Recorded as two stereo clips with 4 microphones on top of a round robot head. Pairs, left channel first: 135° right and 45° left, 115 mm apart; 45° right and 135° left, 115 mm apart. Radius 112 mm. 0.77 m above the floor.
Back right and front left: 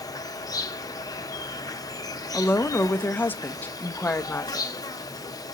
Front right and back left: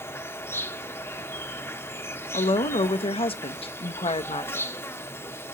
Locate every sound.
0.0 s an insect: 100° right, 1.1 m
2.3 s a woman speaking: 65° right, 0.8 m